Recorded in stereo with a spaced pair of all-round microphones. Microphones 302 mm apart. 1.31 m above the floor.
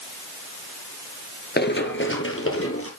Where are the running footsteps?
35° left (ahead or behind), 1.5 m; by 2.9 s 45° left (ahead or behind), 2.5 m.